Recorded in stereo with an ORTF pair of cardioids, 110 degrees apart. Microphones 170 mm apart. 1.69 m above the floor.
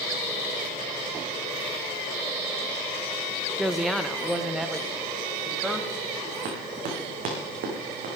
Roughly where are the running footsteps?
Ahead right.